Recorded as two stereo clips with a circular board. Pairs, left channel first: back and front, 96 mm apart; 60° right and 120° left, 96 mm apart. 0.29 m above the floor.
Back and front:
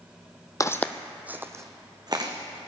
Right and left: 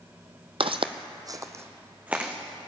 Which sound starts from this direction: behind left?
Footsteps, at 0.6 s.